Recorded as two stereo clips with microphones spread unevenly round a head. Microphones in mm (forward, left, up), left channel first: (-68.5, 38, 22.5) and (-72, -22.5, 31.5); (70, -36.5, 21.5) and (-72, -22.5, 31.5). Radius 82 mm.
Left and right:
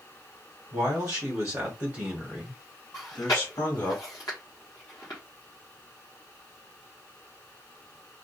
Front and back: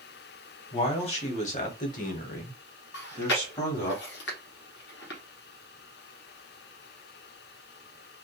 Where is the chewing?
15° left, 0.8 m.